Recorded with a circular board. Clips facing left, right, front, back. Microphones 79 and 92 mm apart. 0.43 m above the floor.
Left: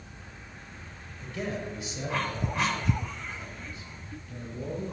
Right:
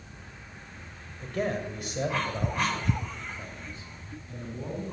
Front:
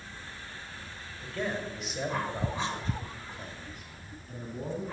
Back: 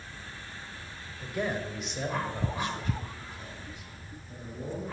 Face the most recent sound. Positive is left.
turn(degrees=-30)